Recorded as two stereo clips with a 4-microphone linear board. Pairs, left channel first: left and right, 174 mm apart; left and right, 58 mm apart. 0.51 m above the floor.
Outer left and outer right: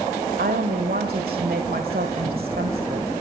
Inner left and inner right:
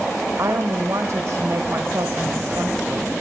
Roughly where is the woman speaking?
Right.